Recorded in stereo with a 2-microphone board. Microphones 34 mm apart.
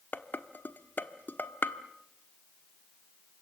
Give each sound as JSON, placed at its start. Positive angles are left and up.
{"t": 0.1, "sound": "dishes clattering", "side_deg": 65, "distance_m": 1.2}